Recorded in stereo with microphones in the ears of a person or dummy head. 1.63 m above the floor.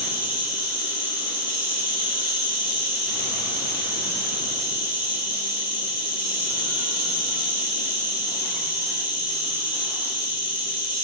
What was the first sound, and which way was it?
An insect, 30° right (ahead or behind).